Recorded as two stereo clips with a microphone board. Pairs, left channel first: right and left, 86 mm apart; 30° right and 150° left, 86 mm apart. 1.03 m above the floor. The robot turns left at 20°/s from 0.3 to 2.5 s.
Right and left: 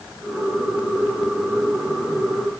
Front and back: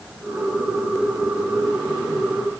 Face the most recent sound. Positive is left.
No sound to turn to.